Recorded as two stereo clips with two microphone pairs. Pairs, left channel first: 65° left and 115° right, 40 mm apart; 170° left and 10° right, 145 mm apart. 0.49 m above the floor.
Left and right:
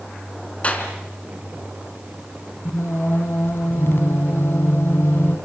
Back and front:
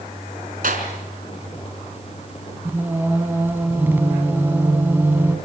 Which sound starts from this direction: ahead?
A clap, at 0.6 s.